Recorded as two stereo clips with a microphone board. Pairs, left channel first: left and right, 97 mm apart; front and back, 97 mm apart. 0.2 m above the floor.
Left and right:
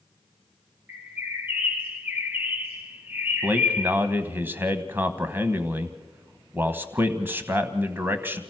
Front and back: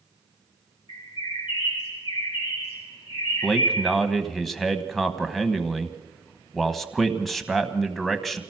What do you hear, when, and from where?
0.9 s a bird: 20° right, 4.5 m
3.4 s a man speaking: 85° right, 1.1 m